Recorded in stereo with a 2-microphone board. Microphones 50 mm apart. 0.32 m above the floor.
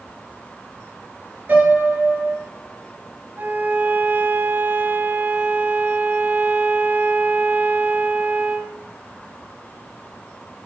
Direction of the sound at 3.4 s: 40° right (ahead or behind).